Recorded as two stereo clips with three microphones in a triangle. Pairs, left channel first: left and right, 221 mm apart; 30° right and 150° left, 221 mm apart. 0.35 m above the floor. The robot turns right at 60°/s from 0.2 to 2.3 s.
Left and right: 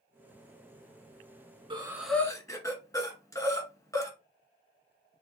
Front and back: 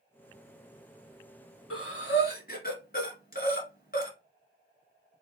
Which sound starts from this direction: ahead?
Breathing, at 1.7 s.